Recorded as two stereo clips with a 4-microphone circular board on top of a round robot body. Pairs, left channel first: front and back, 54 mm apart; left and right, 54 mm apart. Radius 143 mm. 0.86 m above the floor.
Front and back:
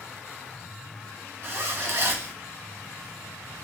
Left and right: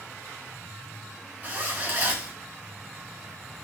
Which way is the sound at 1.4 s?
145° right.